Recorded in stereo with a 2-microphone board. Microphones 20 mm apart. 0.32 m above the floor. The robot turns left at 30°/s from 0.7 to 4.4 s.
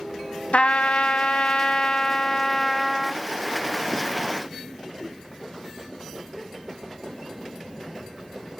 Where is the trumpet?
75° left, 0.5 m; by 3.2 s straight ahead, 0.5 m.